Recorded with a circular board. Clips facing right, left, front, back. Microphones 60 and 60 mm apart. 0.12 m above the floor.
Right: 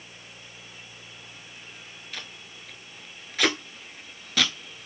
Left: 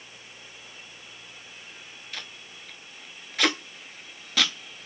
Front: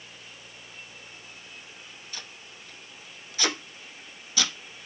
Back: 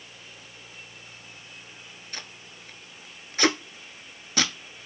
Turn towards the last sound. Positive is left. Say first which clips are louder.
# even, back 4 dB
turn(degrees=180)